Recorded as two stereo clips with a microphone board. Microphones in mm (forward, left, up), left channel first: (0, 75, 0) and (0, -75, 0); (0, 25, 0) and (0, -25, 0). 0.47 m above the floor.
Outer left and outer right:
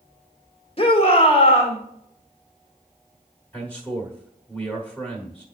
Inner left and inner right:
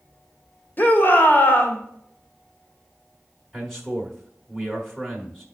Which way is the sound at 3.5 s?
10° left (ahead or behind).